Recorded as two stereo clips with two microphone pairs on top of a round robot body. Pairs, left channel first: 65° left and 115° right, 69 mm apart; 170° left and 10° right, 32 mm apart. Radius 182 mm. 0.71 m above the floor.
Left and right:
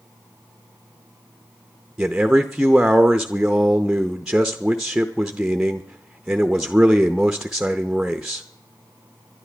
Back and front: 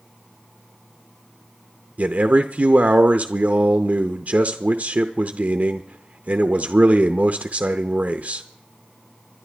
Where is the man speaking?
40° right, 0.8 m.